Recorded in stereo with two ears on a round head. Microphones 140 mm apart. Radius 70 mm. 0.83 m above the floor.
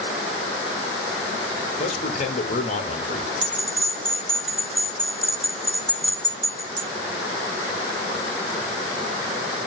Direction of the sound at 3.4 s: 35° right (ahead or behind).